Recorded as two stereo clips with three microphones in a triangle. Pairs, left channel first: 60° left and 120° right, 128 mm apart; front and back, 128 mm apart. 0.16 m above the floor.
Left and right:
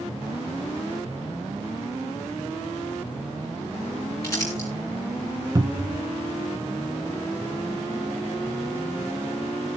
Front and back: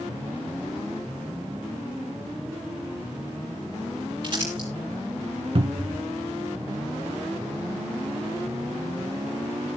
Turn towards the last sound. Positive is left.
turn(degrees=-170)